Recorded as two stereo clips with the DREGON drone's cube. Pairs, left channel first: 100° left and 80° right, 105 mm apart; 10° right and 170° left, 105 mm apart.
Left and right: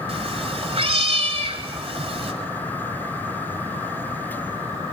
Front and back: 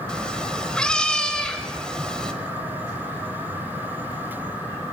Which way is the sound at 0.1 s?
95° right.